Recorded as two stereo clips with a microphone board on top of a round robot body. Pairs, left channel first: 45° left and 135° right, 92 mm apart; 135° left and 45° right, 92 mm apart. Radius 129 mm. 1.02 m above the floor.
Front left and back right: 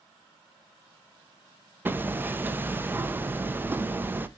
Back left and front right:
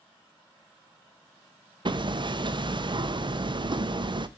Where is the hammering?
70° right, 0.7 m.